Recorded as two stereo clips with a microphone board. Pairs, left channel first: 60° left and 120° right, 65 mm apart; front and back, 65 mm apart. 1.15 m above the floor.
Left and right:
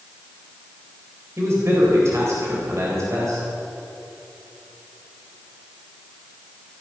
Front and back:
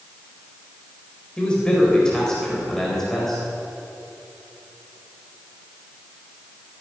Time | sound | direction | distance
1.4 | a man speaking | 75° right | 4.5 m